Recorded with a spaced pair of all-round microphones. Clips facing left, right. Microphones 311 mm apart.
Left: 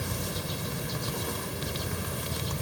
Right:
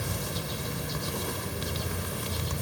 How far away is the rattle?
I don't hear a rattle.